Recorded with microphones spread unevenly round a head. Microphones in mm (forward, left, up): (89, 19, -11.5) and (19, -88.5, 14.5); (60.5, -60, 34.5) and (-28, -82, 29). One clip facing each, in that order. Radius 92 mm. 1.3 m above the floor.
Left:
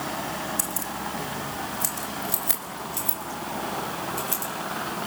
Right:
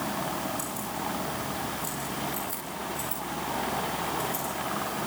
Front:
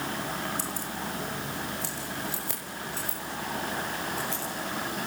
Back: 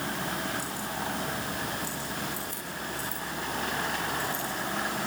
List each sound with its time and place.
0.6 s keys jangling: 50° left, 2.5 m; by 4.5 s 60° left, 7.5 m